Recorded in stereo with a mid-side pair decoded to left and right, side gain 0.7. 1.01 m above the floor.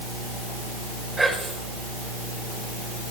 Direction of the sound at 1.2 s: 5° right.